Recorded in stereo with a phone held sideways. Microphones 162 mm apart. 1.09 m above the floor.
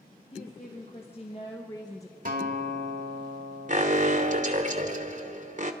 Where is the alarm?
50° right (ahead or behind), 0.9 m.